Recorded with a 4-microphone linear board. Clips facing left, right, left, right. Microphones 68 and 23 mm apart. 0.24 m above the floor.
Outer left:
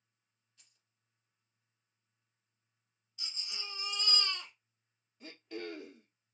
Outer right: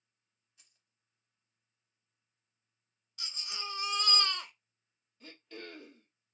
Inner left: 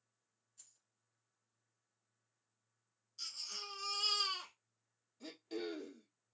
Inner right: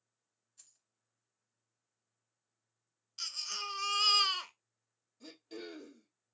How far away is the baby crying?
About 0.8 m.